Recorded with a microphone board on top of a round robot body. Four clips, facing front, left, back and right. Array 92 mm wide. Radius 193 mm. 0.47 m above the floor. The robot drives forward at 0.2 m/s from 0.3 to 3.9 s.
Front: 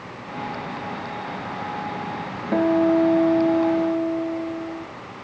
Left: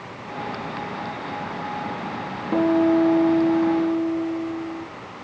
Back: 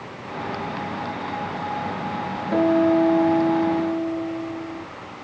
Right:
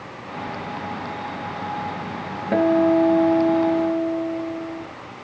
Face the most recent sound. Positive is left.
turn(degrees=-95)